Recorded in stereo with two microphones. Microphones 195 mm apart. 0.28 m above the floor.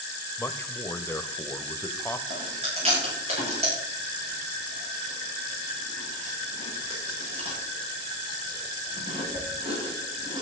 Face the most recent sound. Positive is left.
turn(degrees=-35)  # may be behind; listen again after turning